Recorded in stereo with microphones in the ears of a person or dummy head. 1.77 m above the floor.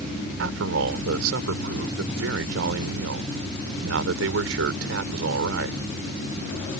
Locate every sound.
0.4 s a man speaking: 80° right